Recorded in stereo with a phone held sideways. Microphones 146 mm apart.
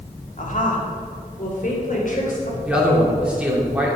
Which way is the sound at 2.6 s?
5° right (ahead or behind).